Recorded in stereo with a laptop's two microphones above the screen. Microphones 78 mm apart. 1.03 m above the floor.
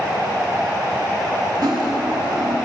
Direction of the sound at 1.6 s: 60° right (ahead or behind).